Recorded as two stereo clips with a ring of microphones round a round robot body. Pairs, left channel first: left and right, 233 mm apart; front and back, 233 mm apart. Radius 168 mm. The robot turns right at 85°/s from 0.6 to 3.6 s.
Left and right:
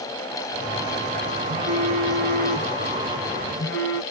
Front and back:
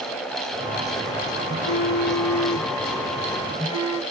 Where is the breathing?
No breathing in this recording.